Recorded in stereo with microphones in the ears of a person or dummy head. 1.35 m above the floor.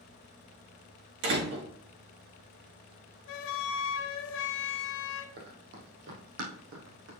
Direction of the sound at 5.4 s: 50° right (ahead or behind).